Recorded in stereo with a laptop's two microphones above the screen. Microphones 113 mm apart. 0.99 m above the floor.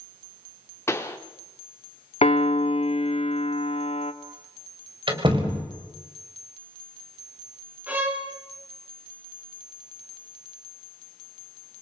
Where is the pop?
25° left (ahead or behind), 2 m.